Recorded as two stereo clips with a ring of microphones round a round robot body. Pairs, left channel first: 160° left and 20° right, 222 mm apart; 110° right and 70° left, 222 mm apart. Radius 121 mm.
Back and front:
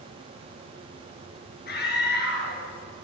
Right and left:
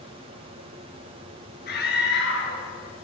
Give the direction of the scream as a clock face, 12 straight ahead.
5 o'clock.